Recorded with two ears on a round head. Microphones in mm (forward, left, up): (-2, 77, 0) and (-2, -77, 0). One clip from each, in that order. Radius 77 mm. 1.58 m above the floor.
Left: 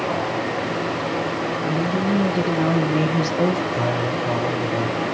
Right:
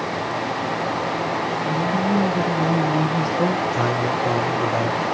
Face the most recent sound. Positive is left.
turn(degrees=-65)  # may be behind; listen again after turning